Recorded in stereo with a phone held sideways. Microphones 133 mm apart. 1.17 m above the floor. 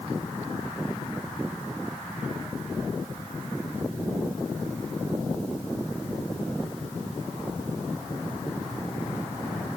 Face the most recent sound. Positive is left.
No sound to turn to.